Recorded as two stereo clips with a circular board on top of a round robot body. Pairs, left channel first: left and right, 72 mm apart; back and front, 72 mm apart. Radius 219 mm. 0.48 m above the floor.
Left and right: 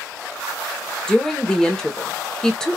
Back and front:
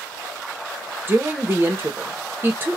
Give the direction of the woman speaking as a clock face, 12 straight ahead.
11 o'clock.